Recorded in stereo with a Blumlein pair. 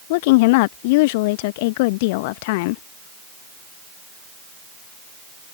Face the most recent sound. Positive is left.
turn(degrees=50)